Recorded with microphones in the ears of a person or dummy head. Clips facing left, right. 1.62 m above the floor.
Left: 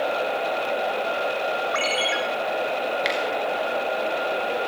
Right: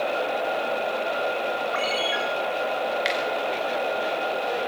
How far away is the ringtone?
About 1.8 m.